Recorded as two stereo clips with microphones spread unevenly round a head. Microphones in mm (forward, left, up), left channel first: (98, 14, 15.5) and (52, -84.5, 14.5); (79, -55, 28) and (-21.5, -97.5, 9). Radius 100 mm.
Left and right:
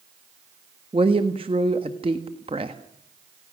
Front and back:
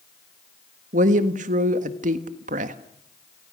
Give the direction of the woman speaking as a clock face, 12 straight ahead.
6 o'clock.